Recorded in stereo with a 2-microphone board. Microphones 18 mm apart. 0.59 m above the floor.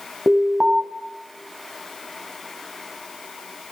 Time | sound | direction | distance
0.3 | an alarm | 65° right (ahead or behind) | 3.5 m